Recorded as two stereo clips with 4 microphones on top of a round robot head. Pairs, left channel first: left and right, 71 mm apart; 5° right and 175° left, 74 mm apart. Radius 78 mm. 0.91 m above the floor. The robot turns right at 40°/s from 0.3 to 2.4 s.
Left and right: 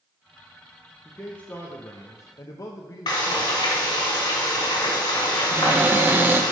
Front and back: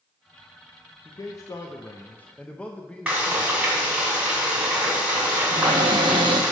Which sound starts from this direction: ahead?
A man speaking, at 1.1 s.